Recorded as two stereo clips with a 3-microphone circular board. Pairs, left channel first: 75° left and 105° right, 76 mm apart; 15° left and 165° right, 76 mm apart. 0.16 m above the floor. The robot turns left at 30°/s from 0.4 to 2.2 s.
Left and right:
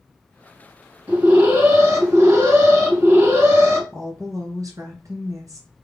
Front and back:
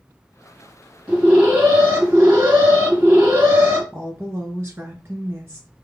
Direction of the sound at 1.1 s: 95° right.